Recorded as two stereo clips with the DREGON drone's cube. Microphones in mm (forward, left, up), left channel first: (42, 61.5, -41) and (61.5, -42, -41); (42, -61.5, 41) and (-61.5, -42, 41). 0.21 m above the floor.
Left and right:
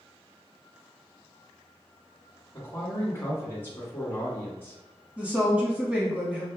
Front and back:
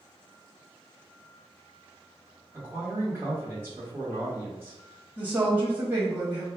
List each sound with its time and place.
2.5 s a man speaking: 130° left, 1.5 m
5.2 s a woman speaking: 140° right, 1.0 m